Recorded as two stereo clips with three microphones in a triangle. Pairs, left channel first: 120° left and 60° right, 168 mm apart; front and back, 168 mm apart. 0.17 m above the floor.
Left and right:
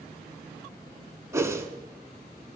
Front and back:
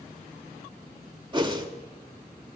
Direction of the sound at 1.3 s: 125° right.